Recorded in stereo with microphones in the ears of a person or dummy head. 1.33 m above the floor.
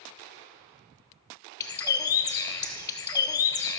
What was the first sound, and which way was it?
A bird, 20° left (ahead or behind).